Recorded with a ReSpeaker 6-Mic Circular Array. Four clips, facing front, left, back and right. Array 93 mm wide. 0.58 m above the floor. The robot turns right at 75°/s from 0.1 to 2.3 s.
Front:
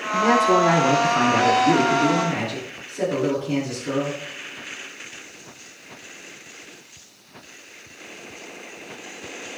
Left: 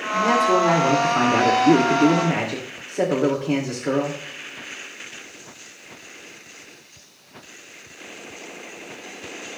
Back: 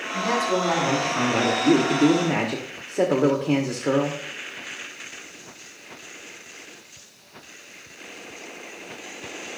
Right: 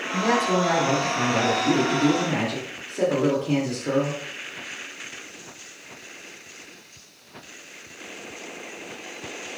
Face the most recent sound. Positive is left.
turn(degrees=160)